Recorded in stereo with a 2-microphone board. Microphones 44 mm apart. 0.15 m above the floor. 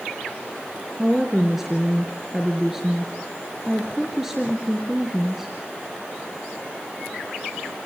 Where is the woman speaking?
5° right (ahead or behind), 3 m.